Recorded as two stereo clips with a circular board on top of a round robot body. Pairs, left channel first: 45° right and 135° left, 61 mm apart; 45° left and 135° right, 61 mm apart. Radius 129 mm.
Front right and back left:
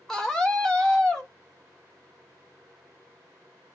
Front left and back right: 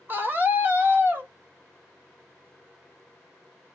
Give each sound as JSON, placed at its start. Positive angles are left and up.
{"t": 0.1, "sound": "a scream", "azimuth_deg": -120, "distance_m": 1.5}